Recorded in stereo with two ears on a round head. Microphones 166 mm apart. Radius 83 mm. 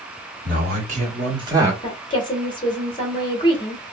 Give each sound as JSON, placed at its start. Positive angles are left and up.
{"t": 0.5, "sound": "a man speaking", "side_deg": -50, "distance_m": 1.7}
{"t": 1.8, "sound": "a woman speaking", "side_deg": 25, "distance_m": 1.1}